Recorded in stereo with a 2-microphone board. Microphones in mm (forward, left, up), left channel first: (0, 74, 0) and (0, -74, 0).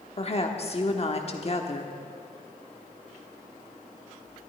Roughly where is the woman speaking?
Left.